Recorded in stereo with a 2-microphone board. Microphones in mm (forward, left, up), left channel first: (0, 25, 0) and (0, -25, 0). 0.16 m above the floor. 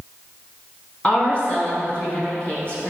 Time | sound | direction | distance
1.0 | a woman speaking | 25° left (ahead or behind) | 1.1 m